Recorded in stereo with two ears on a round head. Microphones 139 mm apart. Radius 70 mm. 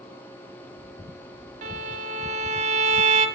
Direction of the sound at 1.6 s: 50° right (ahead or behind).